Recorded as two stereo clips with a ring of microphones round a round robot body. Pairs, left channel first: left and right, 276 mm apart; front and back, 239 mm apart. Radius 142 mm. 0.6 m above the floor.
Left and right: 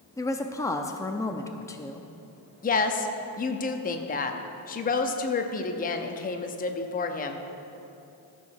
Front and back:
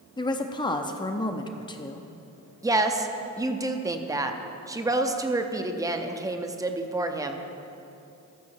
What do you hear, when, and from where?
0.2 s a woman speaking: 30° left, 0.5 m
2.6 s a woman speaking: 115° left, 0.7 m